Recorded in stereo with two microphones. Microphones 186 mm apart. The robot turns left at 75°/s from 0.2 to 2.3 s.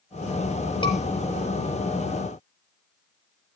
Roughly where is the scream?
Left.